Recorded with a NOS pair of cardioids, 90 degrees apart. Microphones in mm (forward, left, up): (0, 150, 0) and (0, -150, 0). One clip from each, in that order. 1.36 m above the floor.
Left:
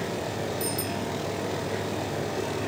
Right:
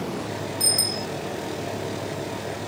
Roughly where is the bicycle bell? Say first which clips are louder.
Right 6 dB; ahead right.